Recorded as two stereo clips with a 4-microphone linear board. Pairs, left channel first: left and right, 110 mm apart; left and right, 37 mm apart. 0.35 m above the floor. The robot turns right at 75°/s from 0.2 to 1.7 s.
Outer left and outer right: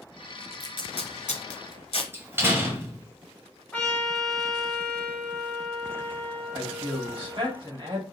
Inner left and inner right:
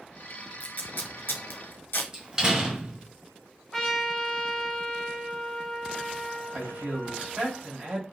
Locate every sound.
0.6 s tape being pulled: 30° left (ahead or behind), 1.0 m; by 2.0 s 65° left (ahead or behind), 1.0 m
2.1 s a door slam: 20° right (ahead or behind), 1.2 m
3.7 s a trumpet: 10° left (ahead or behind), 1.3 m
6.5 s a man speaking: 50° right (ahead or behind), 2.0 m